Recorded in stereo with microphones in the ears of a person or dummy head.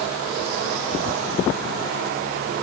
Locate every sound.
Only background noise.